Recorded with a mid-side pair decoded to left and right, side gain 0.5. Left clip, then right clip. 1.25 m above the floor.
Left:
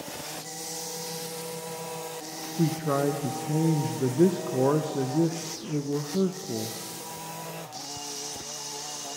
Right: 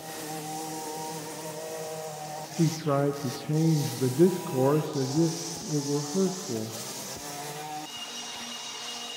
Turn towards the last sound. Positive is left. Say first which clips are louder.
# even
turn(degrees=-5)